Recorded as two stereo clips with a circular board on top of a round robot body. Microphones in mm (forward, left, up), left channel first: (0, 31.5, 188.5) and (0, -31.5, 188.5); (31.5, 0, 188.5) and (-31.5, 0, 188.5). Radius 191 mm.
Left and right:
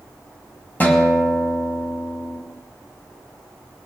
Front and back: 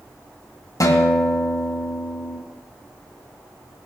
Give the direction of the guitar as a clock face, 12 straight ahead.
11 o'clock.